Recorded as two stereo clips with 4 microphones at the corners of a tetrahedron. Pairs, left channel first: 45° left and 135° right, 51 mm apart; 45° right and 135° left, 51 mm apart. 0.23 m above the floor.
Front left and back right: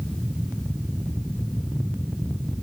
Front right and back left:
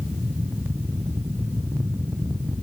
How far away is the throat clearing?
No throat clearing in this recording.